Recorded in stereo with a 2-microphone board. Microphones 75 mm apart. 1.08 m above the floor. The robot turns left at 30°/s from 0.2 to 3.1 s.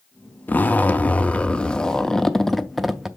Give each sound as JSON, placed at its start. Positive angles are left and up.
{"t": 0.5, "sound": "a zipper", "side_deg": 20, "distance_m": 0.6}